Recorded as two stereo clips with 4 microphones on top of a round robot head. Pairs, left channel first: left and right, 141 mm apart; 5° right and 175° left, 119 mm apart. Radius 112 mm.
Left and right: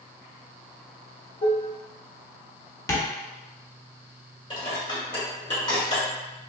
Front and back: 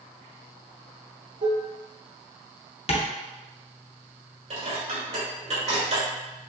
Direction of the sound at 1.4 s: 140° left.